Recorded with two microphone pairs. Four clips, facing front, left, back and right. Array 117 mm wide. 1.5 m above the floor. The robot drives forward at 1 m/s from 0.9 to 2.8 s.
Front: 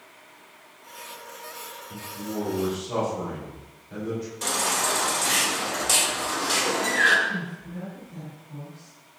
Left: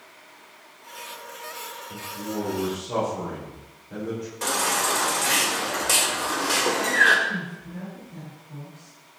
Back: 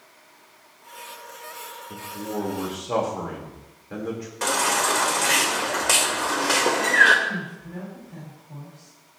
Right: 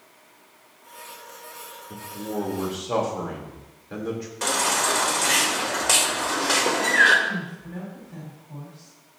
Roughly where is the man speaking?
Behind right.